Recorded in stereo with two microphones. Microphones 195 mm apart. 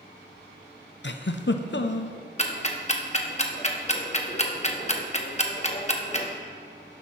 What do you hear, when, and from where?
1.0 s a giggle: 70° left (ahead or behind), 0.6 m
2.4 s ticking: 35° left (ahead or behind), 0.9 m